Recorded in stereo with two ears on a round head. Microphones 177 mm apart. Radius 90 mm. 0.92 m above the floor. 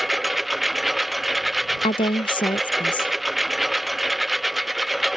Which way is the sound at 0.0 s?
Centre (ahead or behind).